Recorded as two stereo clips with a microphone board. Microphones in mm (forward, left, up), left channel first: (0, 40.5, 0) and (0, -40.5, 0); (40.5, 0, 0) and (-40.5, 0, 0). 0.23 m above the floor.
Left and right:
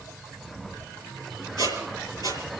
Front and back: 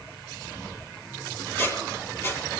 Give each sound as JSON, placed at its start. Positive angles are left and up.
{"t": 1.6, "sound": "a squeak", "azimuth_deg": 55, "distance_m": 7.0}